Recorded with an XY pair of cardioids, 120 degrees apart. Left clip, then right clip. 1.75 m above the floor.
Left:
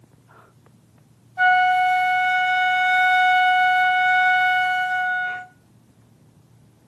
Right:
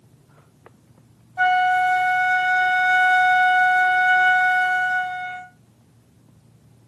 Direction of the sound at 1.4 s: 5° right.